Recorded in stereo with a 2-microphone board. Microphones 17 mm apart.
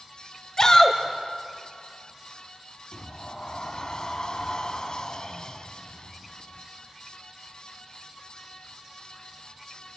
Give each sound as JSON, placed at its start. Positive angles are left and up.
{"t": 0.6, "sound": "a shout", "side_deg": 40, "distance_m": 1.8}
{"t": 2.9, "sound": "a sliding door", "side_deg": 50, "distance_m": 1.3}